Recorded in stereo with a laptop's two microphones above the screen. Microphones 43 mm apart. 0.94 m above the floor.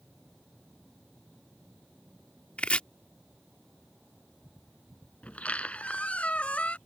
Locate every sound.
2.6 s chopping: 30° left (ahead or behind)
5.2 s a squeak: 30° left (ahead or behind)